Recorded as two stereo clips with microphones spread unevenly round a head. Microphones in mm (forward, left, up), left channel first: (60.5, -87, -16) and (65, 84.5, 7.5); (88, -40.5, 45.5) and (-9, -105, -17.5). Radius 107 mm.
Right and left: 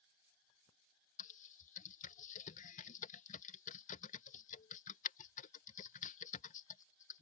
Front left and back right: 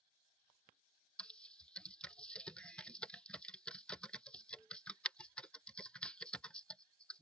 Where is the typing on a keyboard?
65° right.